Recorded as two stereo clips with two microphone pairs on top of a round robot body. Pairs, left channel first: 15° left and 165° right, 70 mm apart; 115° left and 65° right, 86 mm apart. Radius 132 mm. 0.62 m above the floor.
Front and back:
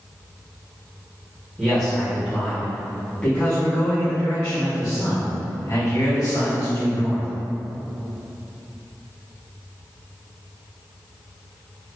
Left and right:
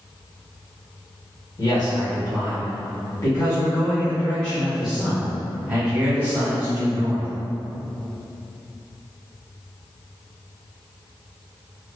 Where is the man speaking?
105° left, 1.8 m; by 7.3 s 15° right, 2.0 m.